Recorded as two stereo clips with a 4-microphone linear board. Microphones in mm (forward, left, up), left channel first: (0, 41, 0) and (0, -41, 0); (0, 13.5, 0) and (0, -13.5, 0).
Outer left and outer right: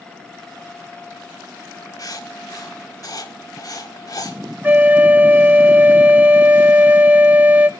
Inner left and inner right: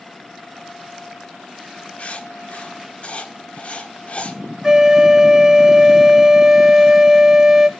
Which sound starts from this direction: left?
Writing, at 2.0 s.